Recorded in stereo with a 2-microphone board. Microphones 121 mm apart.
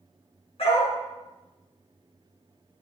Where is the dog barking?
55° left (ahead or behind), 5 m.